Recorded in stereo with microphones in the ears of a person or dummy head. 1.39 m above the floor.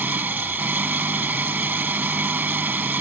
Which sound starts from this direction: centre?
An engine running, at 0.0 s.